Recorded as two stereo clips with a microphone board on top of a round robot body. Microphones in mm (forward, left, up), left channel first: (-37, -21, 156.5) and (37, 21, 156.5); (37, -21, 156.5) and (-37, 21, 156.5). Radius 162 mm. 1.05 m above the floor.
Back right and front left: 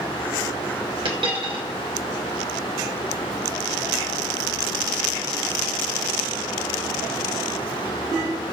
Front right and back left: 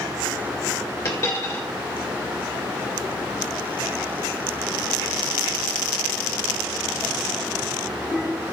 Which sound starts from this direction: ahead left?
A dropped coin, at 1.1 s.